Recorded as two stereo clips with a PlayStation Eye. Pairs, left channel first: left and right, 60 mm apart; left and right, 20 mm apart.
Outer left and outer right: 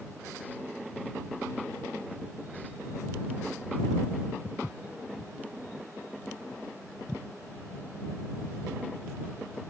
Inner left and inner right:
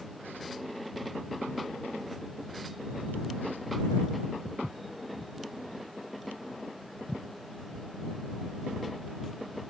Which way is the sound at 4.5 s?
55° left (ahead or behind).